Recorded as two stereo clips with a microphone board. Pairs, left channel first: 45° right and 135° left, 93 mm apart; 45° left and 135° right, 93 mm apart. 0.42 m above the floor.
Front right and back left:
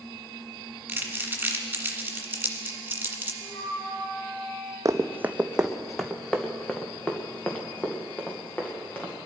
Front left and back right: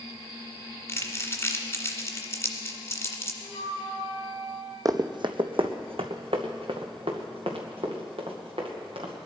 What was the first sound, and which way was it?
Crumpling, 80° left.